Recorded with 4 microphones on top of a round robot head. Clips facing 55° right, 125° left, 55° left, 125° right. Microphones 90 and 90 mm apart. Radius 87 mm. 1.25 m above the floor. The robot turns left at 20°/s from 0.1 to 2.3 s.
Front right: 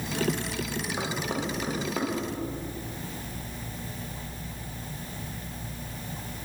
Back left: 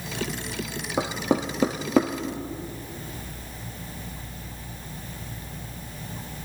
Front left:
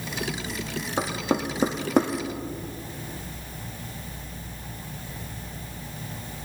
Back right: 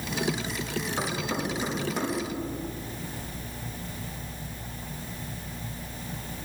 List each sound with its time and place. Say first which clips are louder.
1.0 s knocking: back left 9 dB, front left 8 dB; 120° left, 1.4 m; by 2.1 s 95° left, 1.4 m